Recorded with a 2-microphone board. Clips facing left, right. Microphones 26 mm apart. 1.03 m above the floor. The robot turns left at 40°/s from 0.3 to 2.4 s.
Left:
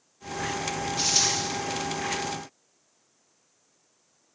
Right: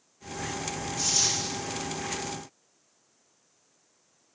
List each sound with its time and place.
1.0 s a dropped coin: 45° left (ahead or behind), 5.5 m; by 1.4 s 30° left (ahead or behind), 5.5 m